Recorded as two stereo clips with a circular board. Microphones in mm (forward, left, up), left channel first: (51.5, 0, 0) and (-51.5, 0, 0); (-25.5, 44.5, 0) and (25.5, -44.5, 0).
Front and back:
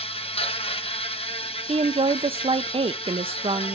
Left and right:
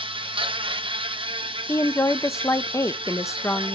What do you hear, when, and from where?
0.0 s an insect: 25° right, 0.8 m
1.7 s a woman speaking: straight behind, 0.6 m